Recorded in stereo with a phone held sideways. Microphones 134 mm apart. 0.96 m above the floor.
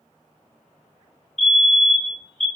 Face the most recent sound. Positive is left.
turn(degrees=5)  # may be behind; listen again after turning